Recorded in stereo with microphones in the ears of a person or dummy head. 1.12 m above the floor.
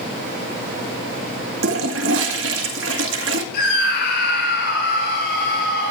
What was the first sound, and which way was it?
A toilet flushing, 70° right (ahead or behind).